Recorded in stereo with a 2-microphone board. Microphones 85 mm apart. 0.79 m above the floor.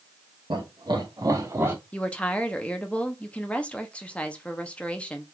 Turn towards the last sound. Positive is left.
turn(degrees=15)  # may be behind; listen again after turning